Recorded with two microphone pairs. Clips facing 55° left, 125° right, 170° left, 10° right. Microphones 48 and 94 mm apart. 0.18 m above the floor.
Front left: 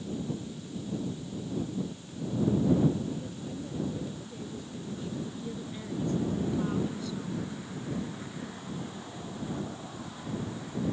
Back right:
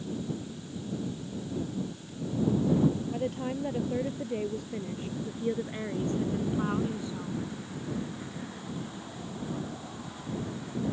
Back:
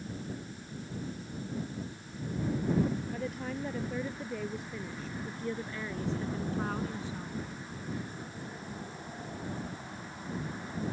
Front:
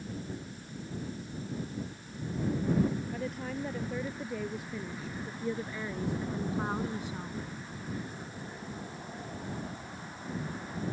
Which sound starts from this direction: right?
A woman speaking, at 3.1 s.